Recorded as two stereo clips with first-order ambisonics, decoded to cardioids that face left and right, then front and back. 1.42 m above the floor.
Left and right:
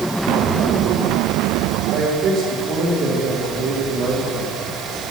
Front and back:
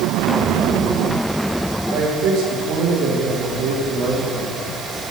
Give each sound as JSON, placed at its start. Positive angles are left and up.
{"t": 1.9, "sound": "a man speaking", "azimuth_deg": -130, "distance_m": 3.0}